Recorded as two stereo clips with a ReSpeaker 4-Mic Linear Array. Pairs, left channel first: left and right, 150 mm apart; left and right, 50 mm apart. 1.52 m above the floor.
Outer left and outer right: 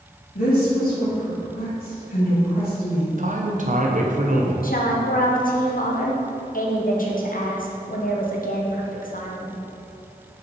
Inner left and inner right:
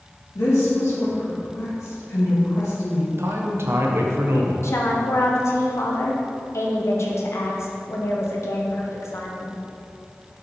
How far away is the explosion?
I don't hear an explosion.